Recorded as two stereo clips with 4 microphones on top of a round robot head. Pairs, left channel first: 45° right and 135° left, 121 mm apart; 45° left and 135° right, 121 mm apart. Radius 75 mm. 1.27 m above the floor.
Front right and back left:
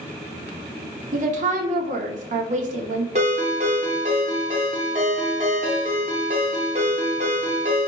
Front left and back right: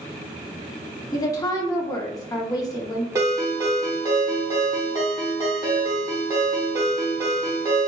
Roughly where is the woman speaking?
Left.